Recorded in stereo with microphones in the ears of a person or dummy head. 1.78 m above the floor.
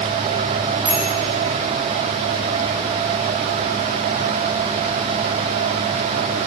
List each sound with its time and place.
0.8 s a bicycle bell: 10° right (ahead or behind), 3.5 m